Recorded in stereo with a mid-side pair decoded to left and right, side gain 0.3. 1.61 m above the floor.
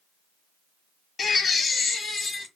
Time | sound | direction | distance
1.2 | a baby crying | 60° left | 2.5 m